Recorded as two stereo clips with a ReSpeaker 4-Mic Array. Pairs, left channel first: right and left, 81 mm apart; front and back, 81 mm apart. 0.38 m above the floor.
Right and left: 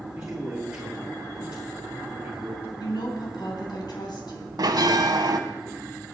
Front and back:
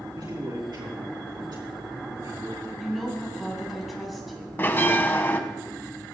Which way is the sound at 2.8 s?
90° right.